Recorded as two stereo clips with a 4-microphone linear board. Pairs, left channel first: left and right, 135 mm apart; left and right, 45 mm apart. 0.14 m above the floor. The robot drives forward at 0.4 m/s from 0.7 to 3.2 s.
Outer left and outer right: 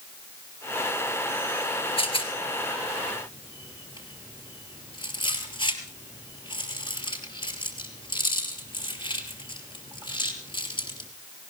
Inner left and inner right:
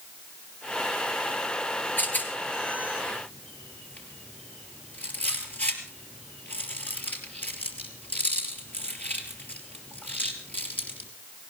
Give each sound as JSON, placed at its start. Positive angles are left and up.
{"t": 2.0, "sound": "a rattle", "side_deg": 45, "distance_m": 2.5}